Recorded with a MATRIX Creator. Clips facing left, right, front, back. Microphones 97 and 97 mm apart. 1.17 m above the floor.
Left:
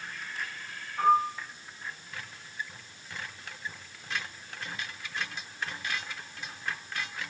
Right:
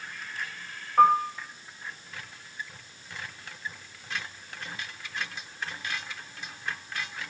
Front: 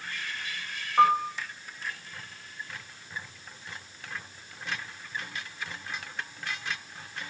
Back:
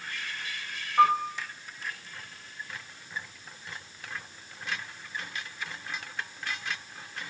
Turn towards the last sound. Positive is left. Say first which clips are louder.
# right 4 dB, front 1 dB
turn(degrees=-65)